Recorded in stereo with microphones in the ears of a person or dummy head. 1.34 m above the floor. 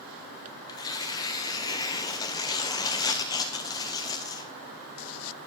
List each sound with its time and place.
0.7 s tearing paper: 25° left (ahead or behind), 0.7 m